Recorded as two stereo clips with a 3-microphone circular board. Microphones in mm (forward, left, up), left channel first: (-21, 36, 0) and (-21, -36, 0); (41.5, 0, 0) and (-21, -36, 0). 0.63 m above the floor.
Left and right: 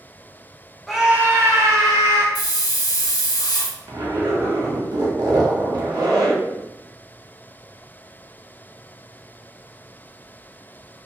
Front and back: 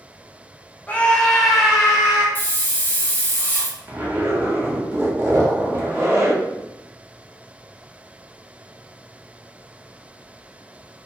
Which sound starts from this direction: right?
A zipper, at 3.9 s.